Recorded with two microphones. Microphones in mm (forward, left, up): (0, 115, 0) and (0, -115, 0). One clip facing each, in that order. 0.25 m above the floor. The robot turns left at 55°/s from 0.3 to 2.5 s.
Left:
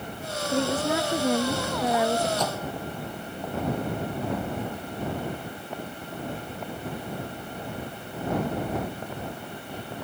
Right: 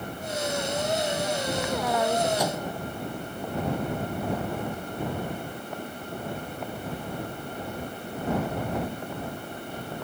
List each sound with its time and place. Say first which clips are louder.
0.5 s a woman speaking: left 6 dB; 100° left; by 2.3 s straight ahead
2.4 s a microwave: right 1 dB; 10° right (ahead or behind); by 2.8 s 15° right (ahead or behind)